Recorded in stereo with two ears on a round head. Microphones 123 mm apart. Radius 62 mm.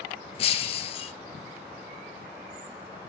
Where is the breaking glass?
45° left (ahead or behind), 1.3 m.